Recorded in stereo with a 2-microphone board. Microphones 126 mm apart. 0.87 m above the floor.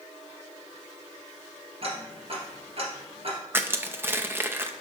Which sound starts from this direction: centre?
Crushing, at 3.5 s.